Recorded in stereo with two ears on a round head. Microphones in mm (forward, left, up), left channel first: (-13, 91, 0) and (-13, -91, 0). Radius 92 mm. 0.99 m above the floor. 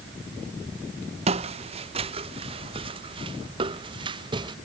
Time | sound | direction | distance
1.3 | footsteps | 30° right (ahead or behind) | ?